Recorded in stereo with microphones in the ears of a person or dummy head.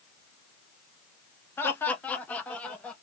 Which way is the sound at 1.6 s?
10° left (ahead or behind).